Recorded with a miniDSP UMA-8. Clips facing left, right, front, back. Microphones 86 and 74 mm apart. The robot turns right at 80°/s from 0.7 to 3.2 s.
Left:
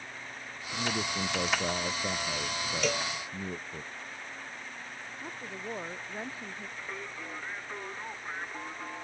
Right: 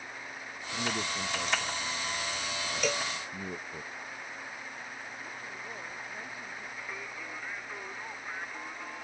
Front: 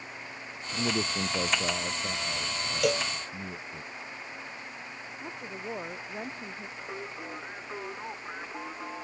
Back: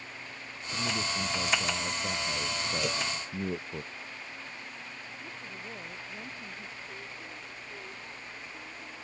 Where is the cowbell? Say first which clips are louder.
Even, front 10 dB; 5° right; by 3.1 s 15° left.